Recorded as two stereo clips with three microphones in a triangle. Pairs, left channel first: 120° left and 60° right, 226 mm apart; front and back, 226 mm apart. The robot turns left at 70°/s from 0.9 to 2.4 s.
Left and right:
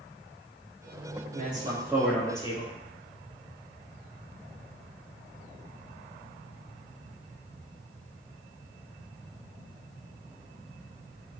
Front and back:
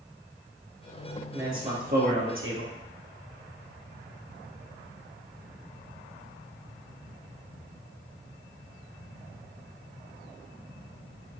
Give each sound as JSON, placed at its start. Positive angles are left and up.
{"t": 1.3, "sound": "a man speaking", "azimuth_deg": -95, "distance_m": 3.0}